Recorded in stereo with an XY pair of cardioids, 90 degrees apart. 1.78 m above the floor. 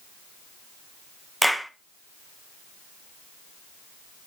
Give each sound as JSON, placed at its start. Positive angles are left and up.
{"t": 1.4, "sound": "a clap", "azimuth_deg": 0, "distance_m": 1.1}